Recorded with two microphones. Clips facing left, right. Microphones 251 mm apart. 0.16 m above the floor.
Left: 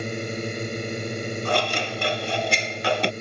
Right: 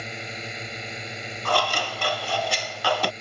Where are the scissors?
20° left (ahead or behind).